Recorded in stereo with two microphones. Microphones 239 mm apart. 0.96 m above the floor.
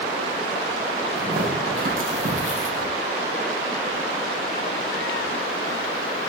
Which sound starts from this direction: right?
Tearing paper, at 1.2 s.